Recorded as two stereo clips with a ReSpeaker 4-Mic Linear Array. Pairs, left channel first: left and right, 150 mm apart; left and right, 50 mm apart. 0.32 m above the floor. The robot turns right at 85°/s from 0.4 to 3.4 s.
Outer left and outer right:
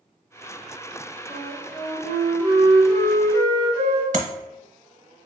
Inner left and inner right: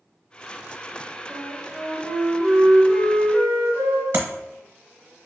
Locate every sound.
1.3 s a flute: 125° right, 1.8 m; by 4.0 s 55° left, 1.8 m
4.1 s tapping: 55° right (ahead or behind), 0.9 m